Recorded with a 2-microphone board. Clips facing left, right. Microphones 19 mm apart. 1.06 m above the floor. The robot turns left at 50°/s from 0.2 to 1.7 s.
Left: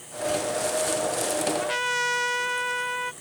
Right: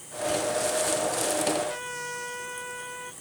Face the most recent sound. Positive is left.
turn(degrees=50)  # may be behind; listen again after turning